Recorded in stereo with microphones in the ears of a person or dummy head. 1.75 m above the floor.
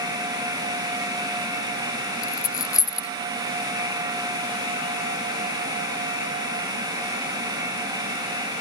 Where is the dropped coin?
20° left (ahead or behind).